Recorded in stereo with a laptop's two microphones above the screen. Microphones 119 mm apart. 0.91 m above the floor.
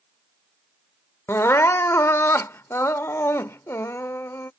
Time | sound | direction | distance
1.3 | crying | 20° left (ahead or behind) | ?